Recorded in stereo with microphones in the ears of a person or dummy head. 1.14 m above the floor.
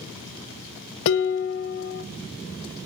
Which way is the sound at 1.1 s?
65° left (ahead or behind).